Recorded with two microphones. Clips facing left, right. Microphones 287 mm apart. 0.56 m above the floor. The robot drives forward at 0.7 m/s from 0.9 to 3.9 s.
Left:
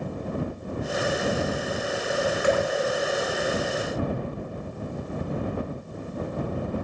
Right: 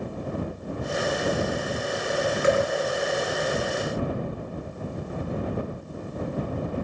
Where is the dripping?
20° right (ahead or behind), 1.1 m; by 2.7 s 25° right (ahead or behind), 1.1 m.